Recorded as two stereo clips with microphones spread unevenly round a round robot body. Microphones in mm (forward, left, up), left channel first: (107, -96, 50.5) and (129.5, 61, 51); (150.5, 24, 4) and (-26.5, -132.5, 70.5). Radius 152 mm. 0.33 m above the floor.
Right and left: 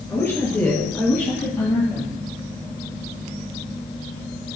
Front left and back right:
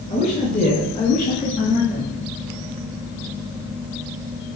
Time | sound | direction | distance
0.1 | a woman speaking | 25° right | 5 m